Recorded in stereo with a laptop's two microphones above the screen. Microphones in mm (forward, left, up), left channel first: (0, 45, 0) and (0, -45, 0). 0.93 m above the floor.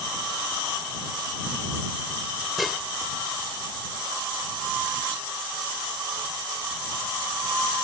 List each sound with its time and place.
2.6 s dishes clattering: centre (ahead or behind)